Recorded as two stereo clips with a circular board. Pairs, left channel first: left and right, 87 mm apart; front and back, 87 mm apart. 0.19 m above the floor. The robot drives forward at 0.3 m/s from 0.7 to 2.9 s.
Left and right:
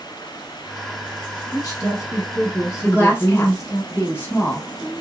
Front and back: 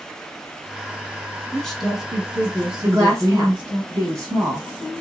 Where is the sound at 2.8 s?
145° left, 1.9 m.